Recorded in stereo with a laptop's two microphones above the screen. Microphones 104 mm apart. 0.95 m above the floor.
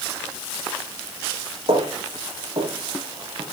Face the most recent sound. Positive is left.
turn(degrees=-50)  # may be behind; listen again after turning